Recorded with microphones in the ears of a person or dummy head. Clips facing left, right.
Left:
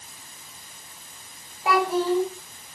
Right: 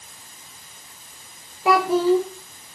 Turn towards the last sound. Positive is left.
turn(degrees=-65)  # may be behind; listen again after turning